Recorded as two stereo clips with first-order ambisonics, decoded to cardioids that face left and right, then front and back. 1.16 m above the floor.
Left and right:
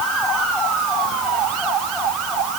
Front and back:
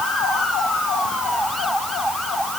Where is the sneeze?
I don't hear a sneeze.